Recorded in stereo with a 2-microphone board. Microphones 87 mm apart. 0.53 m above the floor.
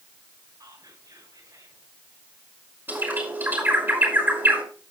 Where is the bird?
25° right (ahead or behind), 6 m.